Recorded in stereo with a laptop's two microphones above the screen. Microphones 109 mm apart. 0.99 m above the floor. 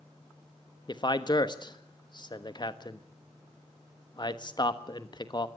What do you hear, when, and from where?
0.9 s a man speaking: 40° left (ahead or behind), 1.2 m